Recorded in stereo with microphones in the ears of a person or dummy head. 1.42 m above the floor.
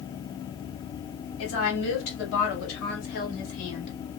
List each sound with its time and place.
1.4 s a woman speaking: 80° left, 2 m; by 3.9 s 45° left (ahead or behind), 1.3 m